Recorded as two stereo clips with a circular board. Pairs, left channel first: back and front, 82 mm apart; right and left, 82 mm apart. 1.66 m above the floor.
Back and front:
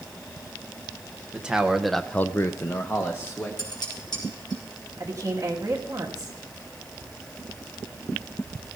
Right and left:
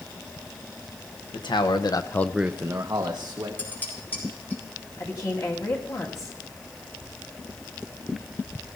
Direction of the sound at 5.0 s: 45° right.